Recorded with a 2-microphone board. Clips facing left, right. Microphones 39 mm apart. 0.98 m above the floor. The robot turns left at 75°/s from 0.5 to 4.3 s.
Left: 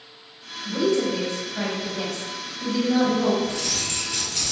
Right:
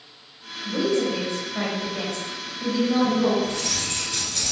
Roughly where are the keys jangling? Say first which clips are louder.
Even; behind right.